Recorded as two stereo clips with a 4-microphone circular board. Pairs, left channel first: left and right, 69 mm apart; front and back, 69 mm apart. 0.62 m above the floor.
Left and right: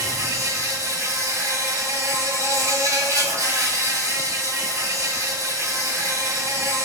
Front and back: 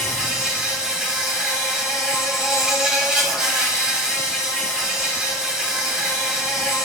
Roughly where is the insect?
Right.